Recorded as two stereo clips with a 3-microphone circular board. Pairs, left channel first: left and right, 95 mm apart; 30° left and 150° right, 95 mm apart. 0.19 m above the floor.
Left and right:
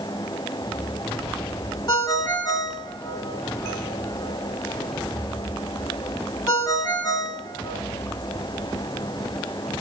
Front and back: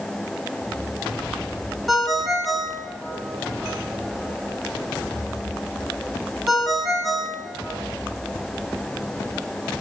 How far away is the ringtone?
About 1.3 m.